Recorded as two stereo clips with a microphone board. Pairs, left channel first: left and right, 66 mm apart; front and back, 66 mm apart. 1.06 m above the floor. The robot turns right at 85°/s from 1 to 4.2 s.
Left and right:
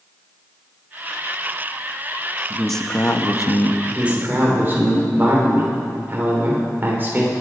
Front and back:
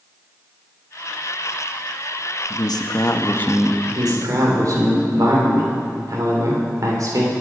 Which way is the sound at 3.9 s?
175° right.